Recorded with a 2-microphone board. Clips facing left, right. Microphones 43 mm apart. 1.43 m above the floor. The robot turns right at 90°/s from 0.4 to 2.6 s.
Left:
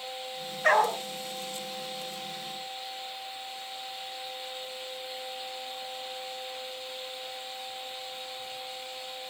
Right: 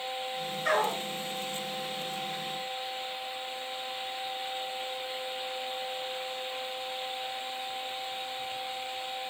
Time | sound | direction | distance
0.6 | a dog barking | 70° left | 3 m